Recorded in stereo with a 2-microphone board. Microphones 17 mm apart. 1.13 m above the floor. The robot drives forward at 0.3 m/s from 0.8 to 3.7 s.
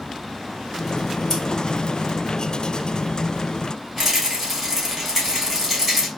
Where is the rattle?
5° left (ahead or behind), 2.0 m.